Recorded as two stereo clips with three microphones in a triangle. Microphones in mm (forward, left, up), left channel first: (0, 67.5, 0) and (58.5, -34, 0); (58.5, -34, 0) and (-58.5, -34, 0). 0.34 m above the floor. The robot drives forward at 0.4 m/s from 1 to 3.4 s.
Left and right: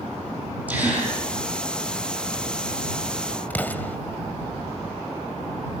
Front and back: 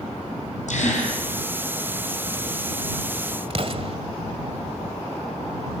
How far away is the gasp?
About 8.5 m.